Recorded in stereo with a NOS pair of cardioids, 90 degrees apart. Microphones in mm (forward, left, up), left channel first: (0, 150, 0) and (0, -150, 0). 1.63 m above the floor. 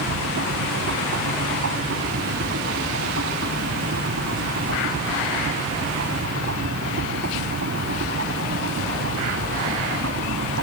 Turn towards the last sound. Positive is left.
turn(degrees=-50)